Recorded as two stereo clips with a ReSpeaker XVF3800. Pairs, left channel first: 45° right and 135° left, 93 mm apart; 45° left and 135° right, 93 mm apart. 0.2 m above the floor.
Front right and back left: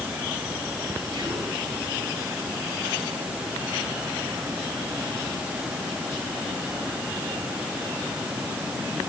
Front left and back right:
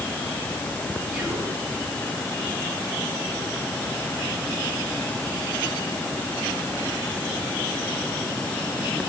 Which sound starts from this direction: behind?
Whispering, at 1.1 s.